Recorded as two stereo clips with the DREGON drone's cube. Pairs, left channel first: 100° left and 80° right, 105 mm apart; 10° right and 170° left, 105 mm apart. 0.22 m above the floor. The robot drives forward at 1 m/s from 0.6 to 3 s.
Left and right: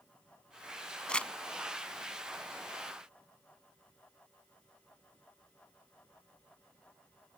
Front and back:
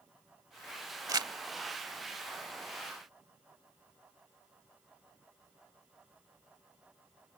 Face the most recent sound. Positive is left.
turn(degrees=180)